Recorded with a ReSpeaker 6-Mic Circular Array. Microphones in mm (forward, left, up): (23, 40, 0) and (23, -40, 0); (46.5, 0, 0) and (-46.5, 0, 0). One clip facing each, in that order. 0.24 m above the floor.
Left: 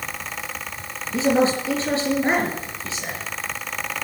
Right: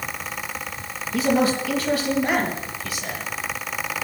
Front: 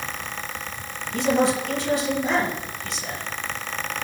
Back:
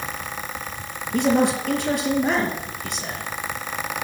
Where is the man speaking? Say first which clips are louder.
Left 1 dB, back 2 dB; 150° left, 4 m.